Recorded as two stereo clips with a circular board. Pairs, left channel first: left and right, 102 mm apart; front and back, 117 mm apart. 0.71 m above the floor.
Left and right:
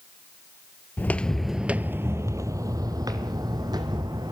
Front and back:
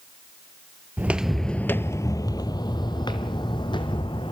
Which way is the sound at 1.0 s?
125° left.